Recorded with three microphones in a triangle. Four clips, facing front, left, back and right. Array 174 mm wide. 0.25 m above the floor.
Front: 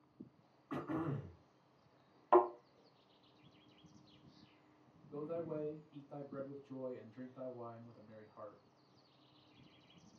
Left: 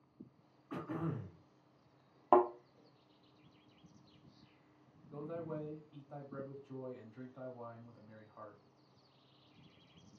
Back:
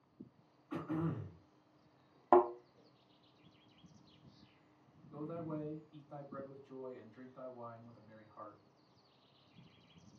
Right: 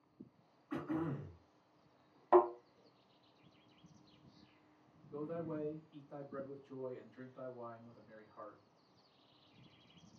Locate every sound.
0.7 s throat clearing: 30° left, 1.9 m
2.3 s a thud: 125° left, 0.7 m
5.1 s a man speaking: 85° left, 1.3 m